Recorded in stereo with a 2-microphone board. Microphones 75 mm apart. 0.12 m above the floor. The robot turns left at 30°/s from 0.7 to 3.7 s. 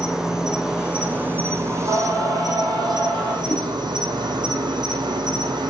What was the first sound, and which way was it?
An insect, 10° right.